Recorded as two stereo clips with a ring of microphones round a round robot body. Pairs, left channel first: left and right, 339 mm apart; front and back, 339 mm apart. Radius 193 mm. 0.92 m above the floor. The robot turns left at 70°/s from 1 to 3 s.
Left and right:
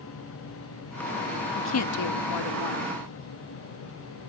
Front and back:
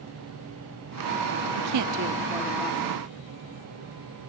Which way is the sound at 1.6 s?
150° left.